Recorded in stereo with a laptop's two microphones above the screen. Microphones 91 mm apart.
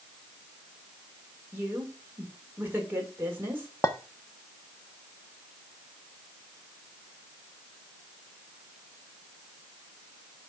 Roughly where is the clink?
Left.